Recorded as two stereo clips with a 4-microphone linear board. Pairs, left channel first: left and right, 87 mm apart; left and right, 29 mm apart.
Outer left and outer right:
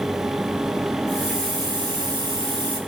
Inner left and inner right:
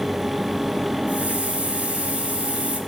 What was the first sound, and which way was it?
A hiss, 80° right.